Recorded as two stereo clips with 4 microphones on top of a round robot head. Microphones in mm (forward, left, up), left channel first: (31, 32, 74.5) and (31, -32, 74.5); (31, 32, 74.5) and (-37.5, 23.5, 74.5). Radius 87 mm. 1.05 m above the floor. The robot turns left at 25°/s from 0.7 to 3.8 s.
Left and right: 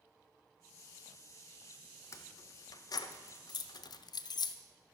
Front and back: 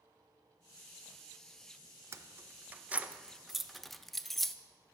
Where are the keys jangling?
135° left, 0.6 m; by 4.5 s 95° left, 0.6 m.